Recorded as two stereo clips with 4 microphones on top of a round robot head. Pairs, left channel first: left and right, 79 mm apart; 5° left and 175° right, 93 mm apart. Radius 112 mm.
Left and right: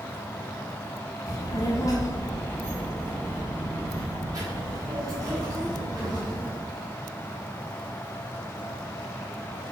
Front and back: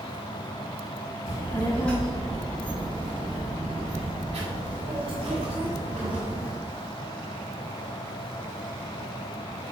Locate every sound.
1.3 s a child speaking: 55° left, 1.0 m; by 6.5 s 150° right, 2.5 m